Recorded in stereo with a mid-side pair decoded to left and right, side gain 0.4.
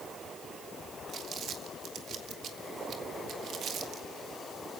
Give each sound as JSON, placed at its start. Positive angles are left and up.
{"t": 1.1, "sound": "crumpling", "azimuth_deg": -70, "distance_m": 2.0}